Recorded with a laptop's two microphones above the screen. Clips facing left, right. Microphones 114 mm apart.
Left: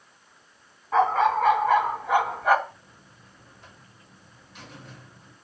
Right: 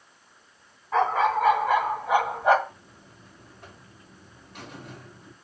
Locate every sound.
0.9 s a dog barking: centre (ahead or behind), 3 m; by 2.6 s 25° right (ahead or behind), 2 m
2.7 s a buzzer: 55° right (ahead or behind), 2 m